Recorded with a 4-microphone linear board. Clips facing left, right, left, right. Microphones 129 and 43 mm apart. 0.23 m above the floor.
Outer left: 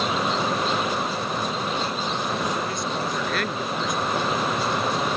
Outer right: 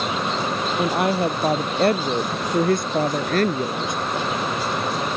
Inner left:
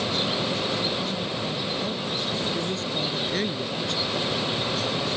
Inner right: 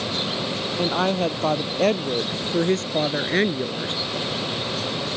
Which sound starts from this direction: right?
A woman speaking, at 0.8 s.